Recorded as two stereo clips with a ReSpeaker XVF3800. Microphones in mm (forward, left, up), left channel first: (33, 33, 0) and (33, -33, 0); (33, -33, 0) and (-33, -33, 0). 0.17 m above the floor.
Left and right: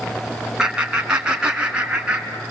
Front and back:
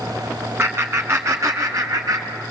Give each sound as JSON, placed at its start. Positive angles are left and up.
{"t": 0.6, "sound": "laughter", "azimuth_deg": -165, "distance_m": 1.6}